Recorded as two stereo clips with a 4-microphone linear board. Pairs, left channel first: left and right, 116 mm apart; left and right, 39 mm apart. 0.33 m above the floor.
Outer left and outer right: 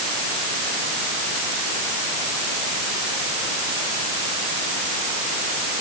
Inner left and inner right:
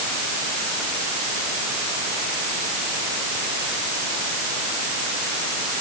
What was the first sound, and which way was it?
Only background noise.